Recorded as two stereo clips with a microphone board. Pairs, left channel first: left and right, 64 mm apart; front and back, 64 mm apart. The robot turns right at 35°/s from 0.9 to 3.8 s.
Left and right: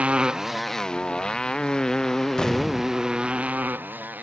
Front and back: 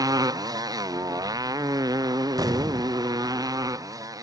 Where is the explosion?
165° left; by 3.0 s 170° right.